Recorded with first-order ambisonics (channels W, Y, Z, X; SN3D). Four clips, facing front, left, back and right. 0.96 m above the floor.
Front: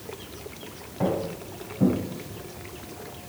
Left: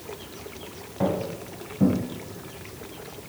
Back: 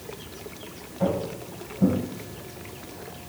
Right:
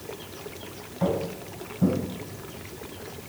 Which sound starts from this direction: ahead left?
Footsteps, at 1.0 s.